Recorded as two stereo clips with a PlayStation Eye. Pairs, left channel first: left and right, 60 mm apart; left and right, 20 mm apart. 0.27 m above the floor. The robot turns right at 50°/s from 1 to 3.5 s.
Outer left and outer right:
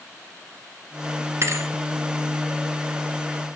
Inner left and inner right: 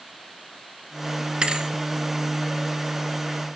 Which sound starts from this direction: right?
A thud, at 1.4 s.